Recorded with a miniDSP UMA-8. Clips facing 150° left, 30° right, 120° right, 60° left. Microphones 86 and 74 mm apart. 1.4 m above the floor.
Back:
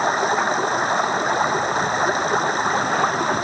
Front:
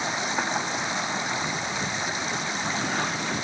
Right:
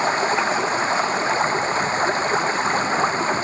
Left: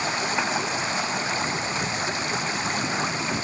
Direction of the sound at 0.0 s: 170° right.